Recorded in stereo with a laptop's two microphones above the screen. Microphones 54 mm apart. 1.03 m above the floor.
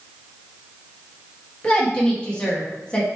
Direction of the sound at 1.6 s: 20° left (ahead or behind).